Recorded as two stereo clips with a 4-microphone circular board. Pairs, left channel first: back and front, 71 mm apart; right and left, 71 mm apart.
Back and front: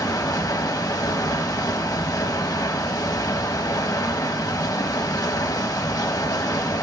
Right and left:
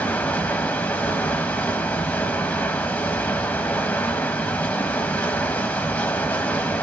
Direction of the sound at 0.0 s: 160° right.